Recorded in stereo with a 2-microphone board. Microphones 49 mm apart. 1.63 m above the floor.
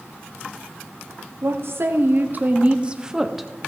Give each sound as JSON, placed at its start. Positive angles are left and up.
{"t": 1.4, "sound": "a woman speaking", "side_deg": -65, "distance_m": 1.1}